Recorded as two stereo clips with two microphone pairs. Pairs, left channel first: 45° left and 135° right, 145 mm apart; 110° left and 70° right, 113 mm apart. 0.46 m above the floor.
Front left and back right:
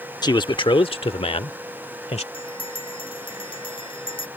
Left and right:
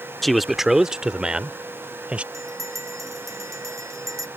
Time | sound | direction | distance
0.2 | a man speaking | 25° left | ?
2.3 | a bell | 10° right | ?